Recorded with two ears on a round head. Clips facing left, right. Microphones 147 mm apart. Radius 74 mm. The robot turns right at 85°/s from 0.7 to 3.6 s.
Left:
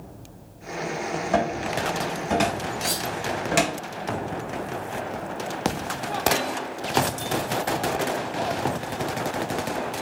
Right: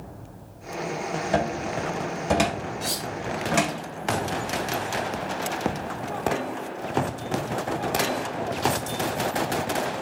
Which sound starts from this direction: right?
A cupboard door, at 1.3 s.